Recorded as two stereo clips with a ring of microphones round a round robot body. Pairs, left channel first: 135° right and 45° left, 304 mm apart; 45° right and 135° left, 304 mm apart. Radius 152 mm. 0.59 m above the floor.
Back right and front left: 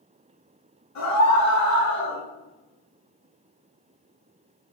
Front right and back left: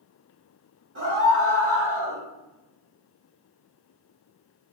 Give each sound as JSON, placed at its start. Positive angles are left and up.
{"t": 0.9, "sound": "a scream", "azimuth_deg": -170, "distance_m": 1.6}